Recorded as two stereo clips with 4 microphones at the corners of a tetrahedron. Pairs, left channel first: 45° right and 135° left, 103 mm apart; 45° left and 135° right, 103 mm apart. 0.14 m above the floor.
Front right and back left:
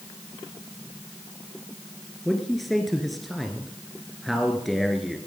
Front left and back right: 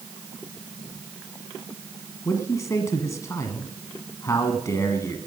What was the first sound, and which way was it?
A man speaking, 45° left.